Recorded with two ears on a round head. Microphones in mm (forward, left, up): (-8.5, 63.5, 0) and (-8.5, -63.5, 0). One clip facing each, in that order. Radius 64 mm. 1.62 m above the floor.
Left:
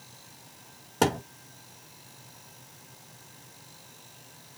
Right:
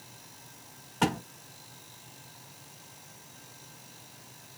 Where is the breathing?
I don't hear breathing.